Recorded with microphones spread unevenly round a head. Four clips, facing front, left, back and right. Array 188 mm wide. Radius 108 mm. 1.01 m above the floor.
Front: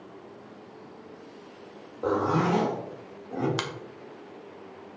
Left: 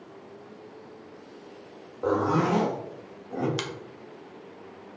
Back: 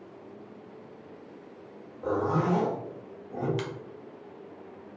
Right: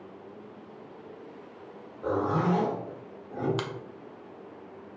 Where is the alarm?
I don't hear an alarm.